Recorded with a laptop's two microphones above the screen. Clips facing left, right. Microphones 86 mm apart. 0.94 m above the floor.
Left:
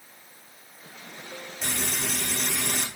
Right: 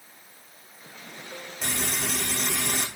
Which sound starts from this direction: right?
Frying, at 1.6 s.